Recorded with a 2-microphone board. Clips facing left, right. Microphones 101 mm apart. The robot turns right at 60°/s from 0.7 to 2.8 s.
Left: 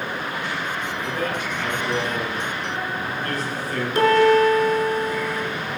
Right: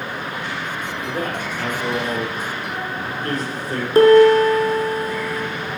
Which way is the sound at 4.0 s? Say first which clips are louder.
Right 6 dB; 40° right (ahead or behind).